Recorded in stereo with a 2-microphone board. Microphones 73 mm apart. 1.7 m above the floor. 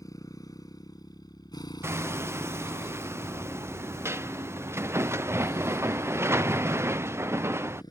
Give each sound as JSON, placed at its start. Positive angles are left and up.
{"t": 0.0, "sound": "a motorcycle", "side_deg": 50}
{"t": 1.8, "sound": "hammering", "side_deg": -40}